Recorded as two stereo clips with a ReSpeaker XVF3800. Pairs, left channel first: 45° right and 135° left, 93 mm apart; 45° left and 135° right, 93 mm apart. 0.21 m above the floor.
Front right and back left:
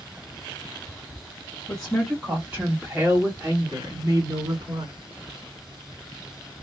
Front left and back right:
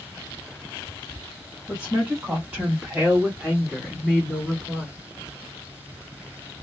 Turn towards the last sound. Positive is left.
turn(degrees=130)